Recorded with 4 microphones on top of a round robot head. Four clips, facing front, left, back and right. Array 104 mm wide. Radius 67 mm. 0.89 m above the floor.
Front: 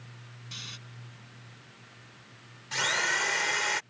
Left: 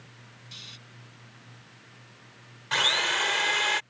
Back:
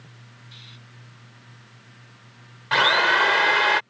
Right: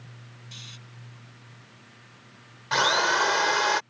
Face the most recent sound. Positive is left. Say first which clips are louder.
# right 5 dB, back 11 dB
turn(degrees=-155)